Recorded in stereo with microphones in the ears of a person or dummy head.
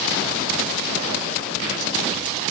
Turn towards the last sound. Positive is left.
No sound to turn to.